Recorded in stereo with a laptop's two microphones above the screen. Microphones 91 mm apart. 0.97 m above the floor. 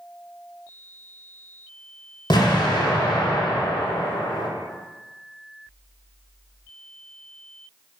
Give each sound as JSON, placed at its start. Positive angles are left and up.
{"t": 2.3, "sound": "an explosion", "side_deg": 65, "distance_m": 1.8}